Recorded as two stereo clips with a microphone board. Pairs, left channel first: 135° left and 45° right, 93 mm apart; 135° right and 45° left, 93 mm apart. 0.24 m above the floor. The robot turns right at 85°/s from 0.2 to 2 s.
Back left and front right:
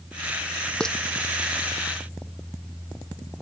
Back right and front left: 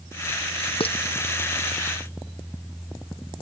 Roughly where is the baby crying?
I don't hear a baby crying.